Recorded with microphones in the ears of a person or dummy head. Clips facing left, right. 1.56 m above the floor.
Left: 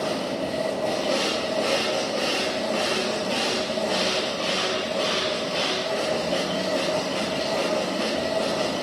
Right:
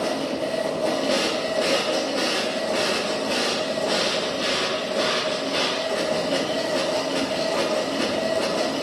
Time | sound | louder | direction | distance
0.0 | a machine running | right 2 dB | 15° right (ahead or behind) | 1.1 m